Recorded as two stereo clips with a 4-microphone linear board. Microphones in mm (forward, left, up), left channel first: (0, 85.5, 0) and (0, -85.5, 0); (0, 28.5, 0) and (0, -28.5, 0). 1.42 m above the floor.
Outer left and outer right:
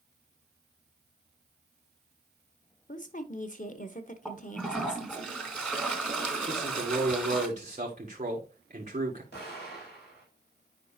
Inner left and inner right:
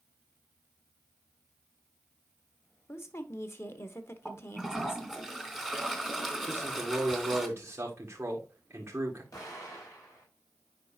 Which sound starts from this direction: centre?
A toilet flushing, at 4.2 s.